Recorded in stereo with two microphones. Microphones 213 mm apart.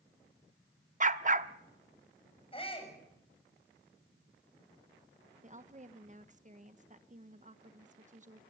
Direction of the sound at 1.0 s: 40° right (ahead or behind).